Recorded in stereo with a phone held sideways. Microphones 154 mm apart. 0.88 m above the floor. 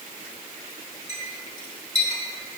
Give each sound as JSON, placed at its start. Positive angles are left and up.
{"t": 1.1, "sound": "a clink", "side_deg": 50, "distance_m": 2.0}